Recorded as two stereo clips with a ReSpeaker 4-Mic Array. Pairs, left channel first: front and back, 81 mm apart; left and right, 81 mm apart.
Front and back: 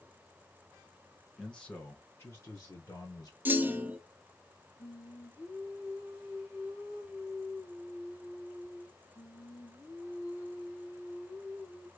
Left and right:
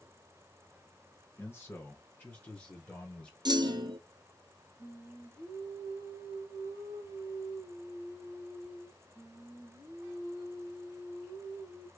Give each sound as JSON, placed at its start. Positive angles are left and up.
{"t": 1.4, "sound": "a man speaking", "azimuth_deg": 75, "distance_m": 1.3}
{"t": 3.5, "sound": "a clunk", "azimuth_deg": -115, "distance_m": 0.6}
{"t": 4.8, "sound": "singing", "azimuth_deg": 45, "distance_m": 2.0}